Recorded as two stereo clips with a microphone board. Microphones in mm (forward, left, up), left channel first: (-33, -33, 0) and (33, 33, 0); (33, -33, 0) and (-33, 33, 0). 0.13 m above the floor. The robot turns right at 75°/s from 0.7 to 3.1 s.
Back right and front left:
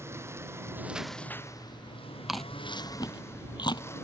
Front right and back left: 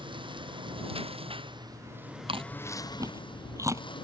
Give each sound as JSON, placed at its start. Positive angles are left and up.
{"t": 0.0, "sound": "a lawn mower", "azimuth_deg": 105}
{"t": 2.3, "sound": "chewing", "azimuth_deg": 130}